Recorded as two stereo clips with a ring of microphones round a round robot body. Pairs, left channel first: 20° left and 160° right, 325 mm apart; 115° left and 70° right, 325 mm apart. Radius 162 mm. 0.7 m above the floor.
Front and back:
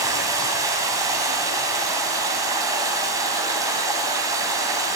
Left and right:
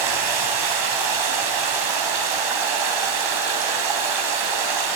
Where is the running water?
75° right, 3.5 m.